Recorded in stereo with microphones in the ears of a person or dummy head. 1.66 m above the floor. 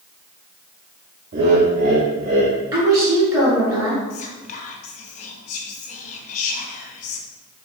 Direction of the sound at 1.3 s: 50° right (ahead or behind).